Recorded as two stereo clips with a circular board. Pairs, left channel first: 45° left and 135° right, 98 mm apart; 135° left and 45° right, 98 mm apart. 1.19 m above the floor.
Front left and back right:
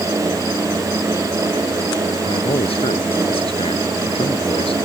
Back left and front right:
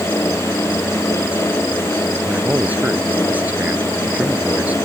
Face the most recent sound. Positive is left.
turn(degrees=30)